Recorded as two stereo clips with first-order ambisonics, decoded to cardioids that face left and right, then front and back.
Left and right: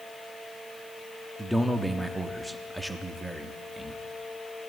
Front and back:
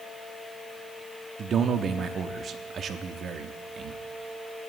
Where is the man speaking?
175° right, 0.7 m.